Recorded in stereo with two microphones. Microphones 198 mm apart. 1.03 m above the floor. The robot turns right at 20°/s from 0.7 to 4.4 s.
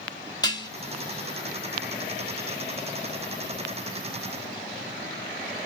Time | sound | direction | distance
0.4 | dishes clattering | 20° left (ahead or behind) | 1.2 m